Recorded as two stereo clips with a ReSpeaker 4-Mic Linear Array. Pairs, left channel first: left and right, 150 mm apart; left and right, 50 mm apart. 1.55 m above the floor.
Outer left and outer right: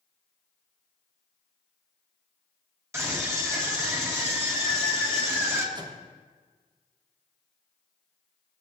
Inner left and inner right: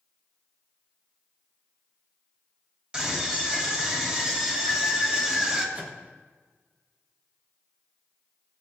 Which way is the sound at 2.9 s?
20° right (ahead or behind).